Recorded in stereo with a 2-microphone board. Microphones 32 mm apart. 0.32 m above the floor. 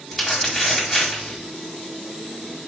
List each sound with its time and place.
0.1 s crumpling: centre (ahead or behind), 2 m